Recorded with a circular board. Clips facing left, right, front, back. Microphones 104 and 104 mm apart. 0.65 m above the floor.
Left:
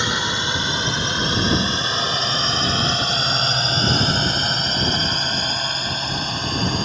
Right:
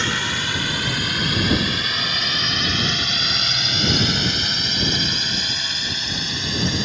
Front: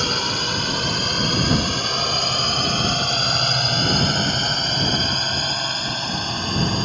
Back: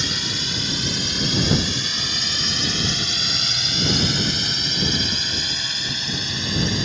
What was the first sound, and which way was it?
A drone, 20° left.